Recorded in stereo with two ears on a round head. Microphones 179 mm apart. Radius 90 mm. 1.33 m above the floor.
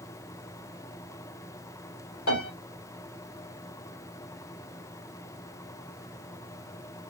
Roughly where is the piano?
Left.